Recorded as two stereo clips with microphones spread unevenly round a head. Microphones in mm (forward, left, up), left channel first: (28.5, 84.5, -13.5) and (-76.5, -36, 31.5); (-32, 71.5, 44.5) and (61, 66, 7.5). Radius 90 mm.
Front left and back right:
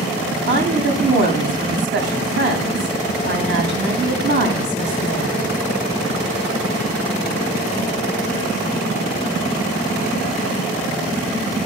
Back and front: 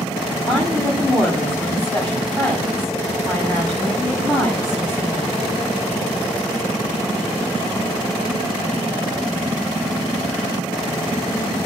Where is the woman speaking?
100° right, 8 m.